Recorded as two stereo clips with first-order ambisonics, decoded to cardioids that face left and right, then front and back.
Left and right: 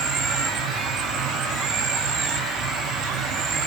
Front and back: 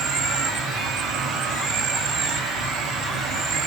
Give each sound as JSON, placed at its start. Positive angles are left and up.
{"t": 0.0, "sound": "an insect", "azimuth_deg": -130, "distance_m": 1.6}